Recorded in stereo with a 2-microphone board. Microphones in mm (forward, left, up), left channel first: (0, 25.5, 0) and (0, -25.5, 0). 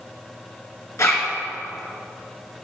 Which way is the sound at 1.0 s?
75° left (ahead or behind).